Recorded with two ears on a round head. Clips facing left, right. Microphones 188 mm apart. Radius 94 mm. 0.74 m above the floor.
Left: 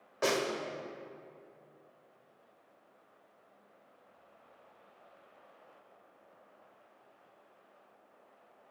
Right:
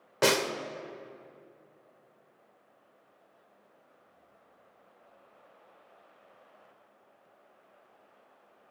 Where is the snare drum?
80° right, 1.0 m.